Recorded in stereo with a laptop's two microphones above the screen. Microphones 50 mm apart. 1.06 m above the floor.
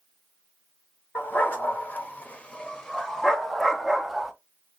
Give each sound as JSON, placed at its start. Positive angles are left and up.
{"t": 1.1, "sound": "a dog barking", "side_deg": 40, "distance_m": 1.0}